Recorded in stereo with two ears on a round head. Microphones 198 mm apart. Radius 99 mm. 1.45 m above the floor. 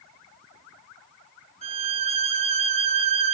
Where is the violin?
30° right (ahead or behind), 3 m.